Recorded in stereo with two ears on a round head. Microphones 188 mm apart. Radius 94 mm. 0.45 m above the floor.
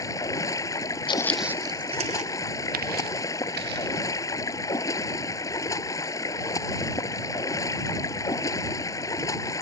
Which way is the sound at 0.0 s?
15° left (ahead or behind).